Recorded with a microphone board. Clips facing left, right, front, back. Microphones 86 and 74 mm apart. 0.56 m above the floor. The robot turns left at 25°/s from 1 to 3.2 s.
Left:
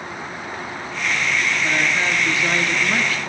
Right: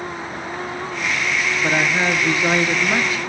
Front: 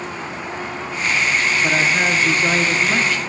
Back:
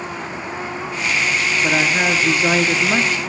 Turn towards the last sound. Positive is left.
turn(degrees=-140)